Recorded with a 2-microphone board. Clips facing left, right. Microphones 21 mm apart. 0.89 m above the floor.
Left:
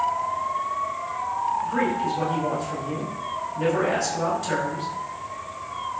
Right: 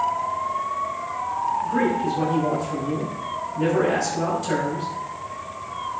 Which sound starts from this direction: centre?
A man speaking, at 1.6 s.